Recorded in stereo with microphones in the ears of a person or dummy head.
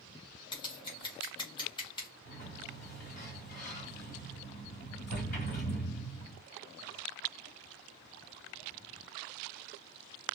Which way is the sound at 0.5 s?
25° left (ahead or behind).